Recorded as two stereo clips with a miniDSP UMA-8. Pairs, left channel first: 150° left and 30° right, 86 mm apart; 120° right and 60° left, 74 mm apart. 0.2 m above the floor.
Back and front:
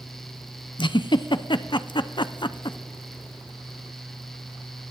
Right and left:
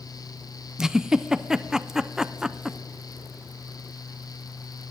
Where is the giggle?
145° left, 0.5 m.